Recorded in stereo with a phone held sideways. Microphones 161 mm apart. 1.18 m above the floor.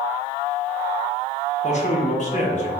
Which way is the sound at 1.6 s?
45° left (ahead or behind).